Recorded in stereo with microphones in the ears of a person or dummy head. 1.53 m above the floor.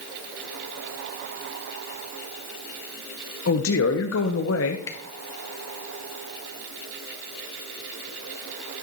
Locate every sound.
3.5 s a man speaking: 75° left (ahead or behind), 0.9 m
4.9 s a camera shutter: 25° left (ahead or behind), 1.2 m